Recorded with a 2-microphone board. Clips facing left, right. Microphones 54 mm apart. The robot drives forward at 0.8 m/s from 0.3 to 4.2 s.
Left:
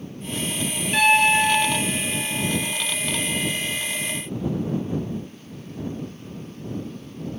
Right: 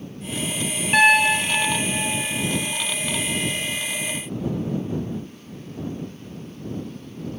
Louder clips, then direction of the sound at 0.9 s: Right 1 dB; 40° right (ahead or behind).